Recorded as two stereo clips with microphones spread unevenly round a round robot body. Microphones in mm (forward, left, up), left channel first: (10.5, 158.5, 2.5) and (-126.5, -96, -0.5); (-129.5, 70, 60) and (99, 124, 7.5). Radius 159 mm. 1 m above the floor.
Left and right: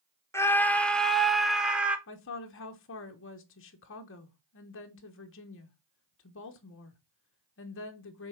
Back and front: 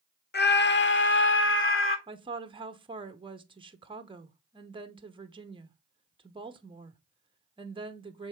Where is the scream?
140° left, 1.3 m; by 2.0 s 155° left, 2.0 m.